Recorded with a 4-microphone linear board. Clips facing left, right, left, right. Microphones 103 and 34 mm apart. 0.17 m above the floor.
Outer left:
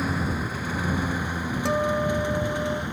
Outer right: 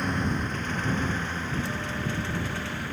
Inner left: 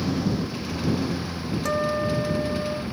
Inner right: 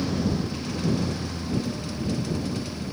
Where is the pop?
I don't hear a pop.